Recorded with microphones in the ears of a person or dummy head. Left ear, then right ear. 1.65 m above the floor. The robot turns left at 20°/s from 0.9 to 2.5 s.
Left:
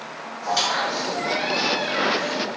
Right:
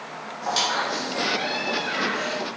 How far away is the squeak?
About 1.7 m.